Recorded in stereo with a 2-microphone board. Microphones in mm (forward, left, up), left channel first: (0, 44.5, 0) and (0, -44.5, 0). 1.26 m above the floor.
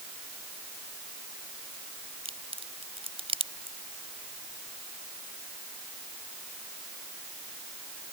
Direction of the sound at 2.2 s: 85° right.